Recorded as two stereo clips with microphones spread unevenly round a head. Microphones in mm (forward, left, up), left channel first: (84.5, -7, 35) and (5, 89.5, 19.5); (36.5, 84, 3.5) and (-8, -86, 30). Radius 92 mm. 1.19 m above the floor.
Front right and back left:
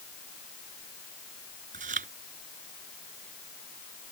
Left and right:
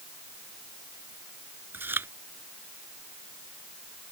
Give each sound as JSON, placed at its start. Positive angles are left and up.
{"t": 1.7, "sound": "chewing", "azimuth_deg": 175}